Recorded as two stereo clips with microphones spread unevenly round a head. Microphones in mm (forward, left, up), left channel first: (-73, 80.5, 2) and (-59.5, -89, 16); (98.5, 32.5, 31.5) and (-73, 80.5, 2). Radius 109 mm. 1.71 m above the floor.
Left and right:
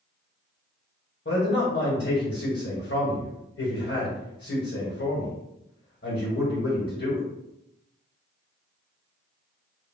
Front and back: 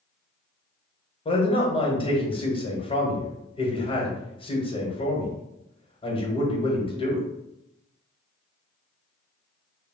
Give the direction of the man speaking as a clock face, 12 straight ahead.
10 o'clock.